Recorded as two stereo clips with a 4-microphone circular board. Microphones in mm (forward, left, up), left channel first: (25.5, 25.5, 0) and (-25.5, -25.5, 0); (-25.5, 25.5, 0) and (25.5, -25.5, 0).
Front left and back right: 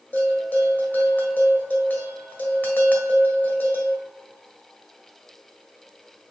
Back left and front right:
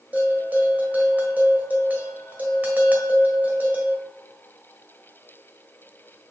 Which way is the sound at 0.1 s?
Straight ahead.